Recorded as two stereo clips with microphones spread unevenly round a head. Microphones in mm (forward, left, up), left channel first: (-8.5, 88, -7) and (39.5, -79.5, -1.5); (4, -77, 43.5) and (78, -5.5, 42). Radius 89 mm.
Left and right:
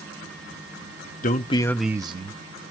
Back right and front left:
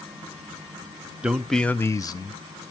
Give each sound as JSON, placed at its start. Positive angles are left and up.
{"t": 1.2, "sound": "a man speaking", "azimuth_deg": 120, "distance_m": 0.6}